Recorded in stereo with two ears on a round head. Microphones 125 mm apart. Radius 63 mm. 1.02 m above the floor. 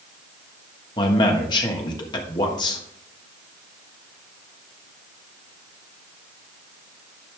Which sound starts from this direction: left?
A man speaking, at 1.0 s.